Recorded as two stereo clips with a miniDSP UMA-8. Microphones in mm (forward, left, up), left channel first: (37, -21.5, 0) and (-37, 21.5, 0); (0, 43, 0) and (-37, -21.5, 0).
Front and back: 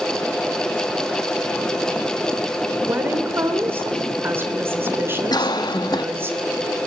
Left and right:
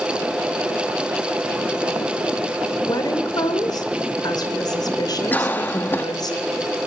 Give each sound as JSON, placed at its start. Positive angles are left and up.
{"t": 2.9, "sound": "a woman speaking", "azimuth_deg": 90, "distance_m": 3.0}
{"t": 5.3, "sound": "a cough", "azimuth_deg": -5, "distance_m": 1.2}